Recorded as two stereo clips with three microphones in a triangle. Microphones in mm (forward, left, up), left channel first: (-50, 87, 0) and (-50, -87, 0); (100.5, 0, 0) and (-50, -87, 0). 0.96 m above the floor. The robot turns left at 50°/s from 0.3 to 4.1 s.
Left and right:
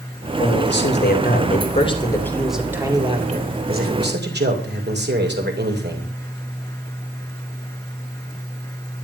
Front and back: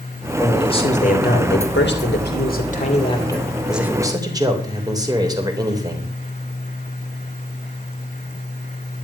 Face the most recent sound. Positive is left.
turn(degrees=-80)